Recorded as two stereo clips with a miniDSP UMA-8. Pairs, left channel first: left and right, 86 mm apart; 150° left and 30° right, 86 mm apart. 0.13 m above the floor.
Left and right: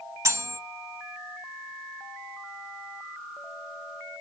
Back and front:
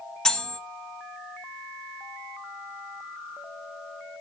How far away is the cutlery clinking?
About 1.1 m.